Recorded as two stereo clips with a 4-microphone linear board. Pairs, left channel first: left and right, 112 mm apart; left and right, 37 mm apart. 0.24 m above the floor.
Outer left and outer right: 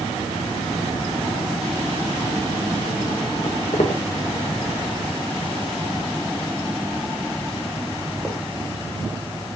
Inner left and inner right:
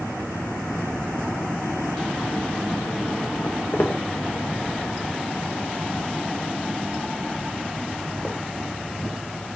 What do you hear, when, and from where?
3.4 s footsteps: 80° left, 2.5 m; by 9.6 s 20° right (ahead or behind), 4 m